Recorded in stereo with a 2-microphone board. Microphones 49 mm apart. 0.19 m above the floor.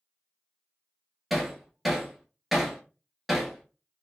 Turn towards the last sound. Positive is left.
turn(degrees=0)  # may be behind; listen again after turning